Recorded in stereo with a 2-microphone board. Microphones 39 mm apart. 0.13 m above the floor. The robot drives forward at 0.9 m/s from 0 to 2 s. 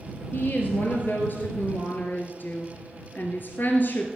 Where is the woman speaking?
50° left (ahead or behind), 2.5 m; by 4.1 s 55° left (ahead or behind), 2 m.